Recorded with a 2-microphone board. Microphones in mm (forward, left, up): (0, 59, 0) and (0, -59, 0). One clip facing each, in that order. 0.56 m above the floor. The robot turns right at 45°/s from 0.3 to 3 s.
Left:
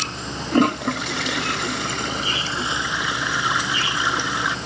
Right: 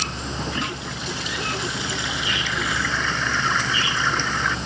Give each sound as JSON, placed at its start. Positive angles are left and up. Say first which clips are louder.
{"t": 0.5, "sound": "a toilet flushing", "louder": "left 11 dB", "side_deg": 55}